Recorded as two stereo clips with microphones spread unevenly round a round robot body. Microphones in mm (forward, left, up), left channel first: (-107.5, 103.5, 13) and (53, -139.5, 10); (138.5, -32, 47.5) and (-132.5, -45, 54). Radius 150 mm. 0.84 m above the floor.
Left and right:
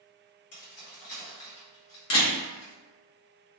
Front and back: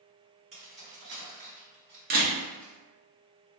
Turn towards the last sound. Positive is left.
turn(degrees=135)